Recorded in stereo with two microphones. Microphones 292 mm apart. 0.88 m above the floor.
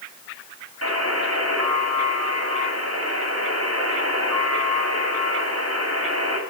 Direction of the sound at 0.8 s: 55° right (ahead or behind).